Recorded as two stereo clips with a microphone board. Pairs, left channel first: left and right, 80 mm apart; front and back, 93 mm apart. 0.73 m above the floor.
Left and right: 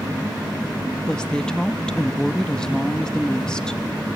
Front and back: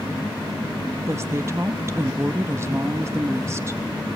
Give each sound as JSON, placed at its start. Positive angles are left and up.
{"t": 1.1, "sound": "a woman speaking", "azimuth_deg": 160, "distance_m": 0.9}